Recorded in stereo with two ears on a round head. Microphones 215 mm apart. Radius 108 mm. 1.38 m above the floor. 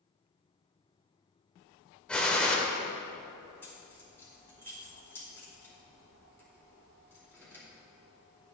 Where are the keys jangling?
10° left (ahead or behind), 2.5 m.